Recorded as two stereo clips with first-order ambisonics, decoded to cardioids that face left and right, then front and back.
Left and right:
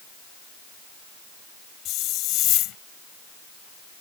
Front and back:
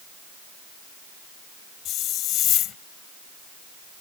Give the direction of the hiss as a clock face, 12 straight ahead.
10 o'clock.